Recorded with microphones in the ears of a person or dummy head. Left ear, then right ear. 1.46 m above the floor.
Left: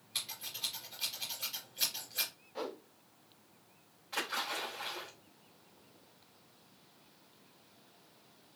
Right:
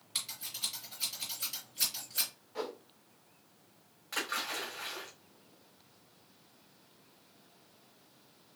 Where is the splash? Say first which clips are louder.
Right 1 dB; 35° right (ahead or behind), 3 m.